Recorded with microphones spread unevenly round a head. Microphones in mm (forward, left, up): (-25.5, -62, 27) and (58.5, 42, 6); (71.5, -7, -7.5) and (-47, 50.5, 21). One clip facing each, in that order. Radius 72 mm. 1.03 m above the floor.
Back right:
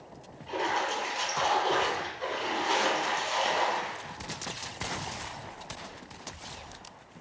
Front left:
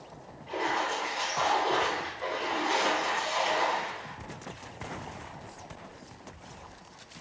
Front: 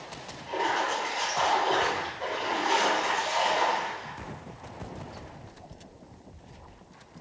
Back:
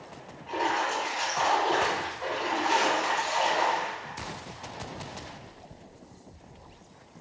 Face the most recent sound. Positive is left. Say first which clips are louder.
# even, even
turn(degrees=-90)